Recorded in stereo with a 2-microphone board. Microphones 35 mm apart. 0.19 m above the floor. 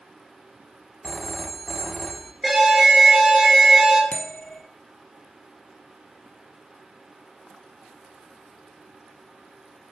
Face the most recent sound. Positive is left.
turn(degrees=40)  # may be behind; listen again after turning